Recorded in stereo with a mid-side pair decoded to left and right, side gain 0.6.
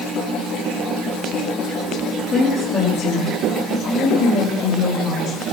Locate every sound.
2.3 s a woman speaking: 30° left, 3.5 m; by 5.4 s 60° left, 5.5 m